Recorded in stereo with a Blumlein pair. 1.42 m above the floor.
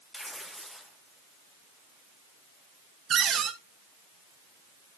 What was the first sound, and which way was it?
Tearing paper, straight ahead.